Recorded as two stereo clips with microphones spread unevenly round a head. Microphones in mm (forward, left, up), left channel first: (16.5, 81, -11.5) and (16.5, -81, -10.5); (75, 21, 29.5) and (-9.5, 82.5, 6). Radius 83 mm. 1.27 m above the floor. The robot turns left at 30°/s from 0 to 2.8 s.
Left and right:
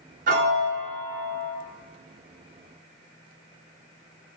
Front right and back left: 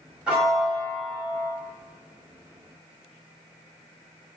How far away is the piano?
About 0.8 m.